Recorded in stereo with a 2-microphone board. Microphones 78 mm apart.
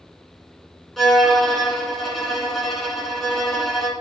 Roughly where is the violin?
Centre.